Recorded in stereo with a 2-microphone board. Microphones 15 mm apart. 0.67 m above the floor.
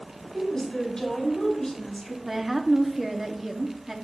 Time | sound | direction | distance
0.3 | a woman speaking | 40° left (ahead or behind) | 4.5 m
2.2 | a woman speaking | 15° right (ahead or behind) | 1.0 m